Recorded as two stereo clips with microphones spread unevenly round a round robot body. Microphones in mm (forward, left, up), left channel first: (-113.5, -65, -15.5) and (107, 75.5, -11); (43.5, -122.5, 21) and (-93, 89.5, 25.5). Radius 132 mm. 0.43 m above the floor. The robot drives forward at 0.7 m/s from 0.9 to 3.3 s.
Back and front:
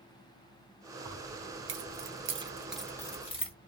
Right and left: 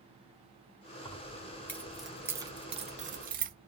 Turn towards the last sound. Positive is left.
turn(degrees=155)